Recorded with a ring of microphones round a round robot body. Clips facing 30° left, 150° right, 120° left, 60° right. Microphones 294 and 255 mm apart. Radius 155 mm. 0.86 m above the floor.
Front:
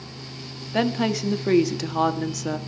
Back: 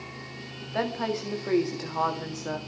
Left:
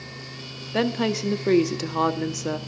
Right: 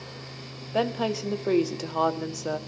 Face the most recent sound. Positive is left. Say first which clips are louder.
# front 7 dB, left 4 dB
turn(degrees=60)